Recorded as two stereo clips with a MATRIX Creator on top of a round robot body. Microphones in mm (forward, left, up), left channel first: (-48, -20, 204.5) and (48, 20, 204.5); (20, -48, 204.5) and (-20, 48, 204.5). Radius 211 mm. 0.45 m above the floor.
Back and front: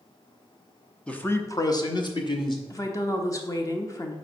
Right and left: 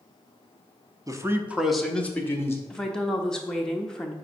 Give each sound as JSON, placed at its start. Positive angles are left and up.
{"t": 1.1, "sound": "a man speaking", "azimuth_deg": 130, "distance_m": 1.1}
{"t": 2.7, "sound": "a woman speaking", "azimuth_deg": -145, "distance_m": 1.0}